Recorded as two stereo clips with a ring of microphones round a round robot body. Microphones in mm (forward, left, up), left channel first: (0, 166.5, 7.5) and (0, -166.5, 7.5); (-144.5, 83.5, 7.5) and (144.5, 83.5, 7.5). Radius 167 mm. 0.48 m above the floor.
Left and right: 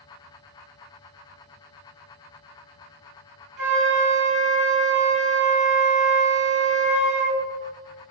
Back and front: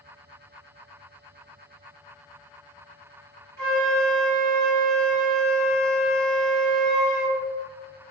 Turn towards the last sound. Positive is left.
turn(degrees=-45)